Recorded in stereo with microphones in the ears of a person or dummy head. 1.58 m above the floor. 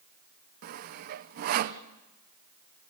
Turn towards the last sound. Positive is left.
turn(degrees=-50)  # may be behind; listen again after turning